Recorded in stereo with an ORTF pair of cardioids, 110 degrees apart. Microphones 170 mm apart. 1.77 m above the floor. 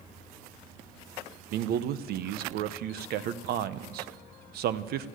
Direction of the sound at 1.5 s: 70° right.